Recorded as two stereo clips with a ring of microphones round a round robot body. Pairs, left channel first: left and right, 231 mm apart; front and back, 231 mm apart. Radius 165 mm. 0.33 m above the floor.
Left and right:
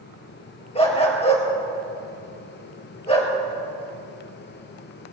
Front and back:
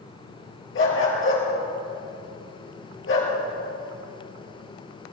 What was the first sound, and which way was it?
A dog barking, 25° left.